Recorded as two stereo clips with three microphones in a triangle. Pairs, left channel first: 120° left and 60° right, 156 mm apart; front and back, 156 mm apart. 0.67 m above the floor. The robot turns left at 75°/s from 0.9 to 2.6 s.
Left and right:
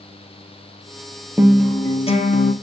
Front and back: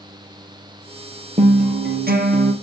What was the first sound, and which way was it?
A guitar, 135° right.